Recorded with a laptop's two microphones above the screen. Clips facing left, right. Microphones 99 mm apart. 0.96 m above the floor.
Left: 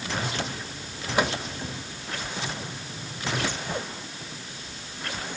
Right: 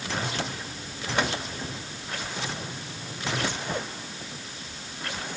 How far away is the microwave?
About 1.7 m.